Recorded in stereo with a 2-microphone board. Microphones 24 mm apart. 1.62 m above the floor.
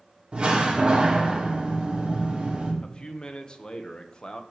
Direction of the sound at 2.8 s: 35° left (ahead or behind).